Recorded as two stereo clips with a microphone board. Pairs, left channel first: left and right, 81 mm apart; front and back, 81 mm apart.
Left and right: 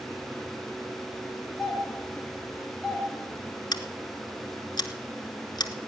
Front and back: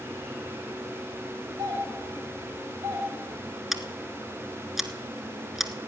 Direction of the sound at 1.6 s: 175° left.